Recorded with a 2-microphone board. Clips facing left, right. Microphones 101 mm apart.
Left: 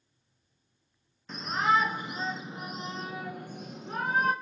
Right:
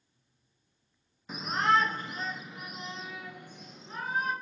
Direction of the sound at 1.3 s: 5° right (ahead or behind).